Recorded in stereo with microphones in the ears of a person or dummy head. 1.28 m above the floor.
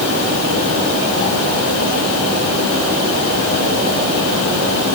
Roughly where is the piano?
No piano in this recording.